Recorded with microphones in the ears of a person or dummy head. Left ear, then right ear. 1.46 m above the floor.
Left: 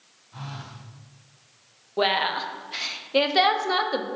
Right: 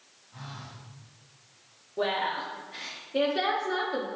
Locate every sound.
0.3 s a phone buzzing: 15° left (ahead or behind), 0.6 m
2.0 s a woman speaking: 45° left (ahead or behind), 0.6 m